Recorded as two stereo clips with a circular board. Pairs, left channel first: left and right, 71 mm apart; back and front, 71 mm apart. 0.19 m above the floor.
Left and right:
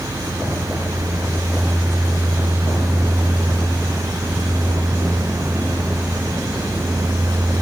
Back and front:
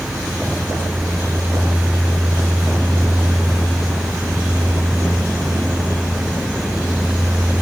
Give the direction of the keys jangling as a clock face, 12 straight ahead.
I don't hear keys jangling.